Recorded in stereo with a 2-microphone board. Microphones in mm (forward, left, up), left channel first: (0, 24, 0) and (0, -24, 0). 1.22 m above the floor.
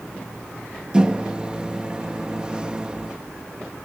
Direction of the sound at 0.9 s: 20° right (ahead or behind).